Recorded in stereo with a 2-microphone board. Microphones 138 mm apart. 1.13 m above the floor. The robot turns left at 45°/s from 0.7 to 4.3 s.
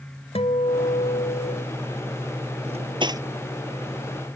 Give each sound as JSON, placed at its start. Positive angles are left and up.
{"t": 0.3, "sound": "a guitar", "azimuth_deg": 135}
{"t": 2.7, "sound": "cutlery clinking", "side_deg": -50}